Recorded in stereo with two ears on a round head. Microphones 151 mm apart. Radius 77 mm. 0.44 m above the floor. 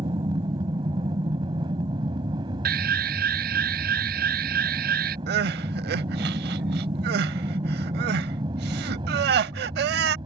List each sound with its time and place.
0.0 s an aircraft: 30° right (ahead or behind)
2.6 s an alarm: 65° right (ahead or behind)
5.3 s crying: 70° right (ahead or behind)